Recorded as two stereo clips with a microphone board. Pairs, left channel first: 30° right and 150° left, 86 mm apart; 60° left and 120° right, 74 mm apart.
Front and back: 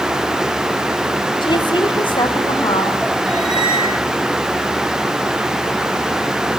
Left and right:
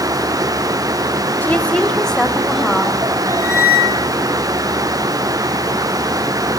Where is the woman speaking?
10° right, 3 m; by 3.0 s 35° right, 4.5 m.